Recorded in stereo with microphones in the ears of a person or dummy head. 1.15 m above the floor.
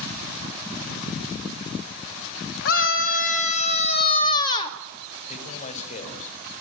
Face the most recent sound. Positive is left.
turn(degrees=40)  # may be behind; listen again after turning